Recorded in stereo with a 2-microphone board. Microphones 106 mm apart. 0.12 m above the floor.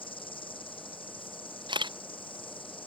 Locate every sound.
0.0 s an insect: 55° left (ahead or behind)
1.7 s a camera shutter: 45° right (ahead or behind)